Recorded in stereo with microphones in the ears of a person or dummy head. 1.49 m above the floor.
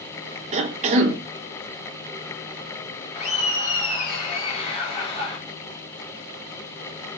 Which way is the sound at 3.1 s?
35° left (ahead or behind).